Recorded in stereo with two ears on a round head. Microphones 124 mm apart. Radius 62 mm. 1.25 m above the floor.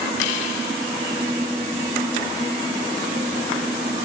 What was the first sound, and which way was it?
Only background noise.